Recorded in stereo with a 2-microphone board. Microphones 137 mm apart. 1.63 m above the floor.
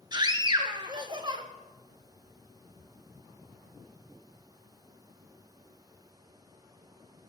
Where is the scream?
30° right (ahead or behind), 1.6 m.